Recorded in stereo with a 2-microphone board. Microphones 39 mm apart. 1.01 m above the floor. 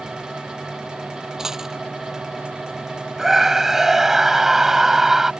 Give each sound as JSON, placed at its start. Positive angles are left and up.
{"t": 1.4, "sound": "a dropped coin", "side_deg": -15}
{"t": 3.2, "sound": "a scream", "side_deg": -10}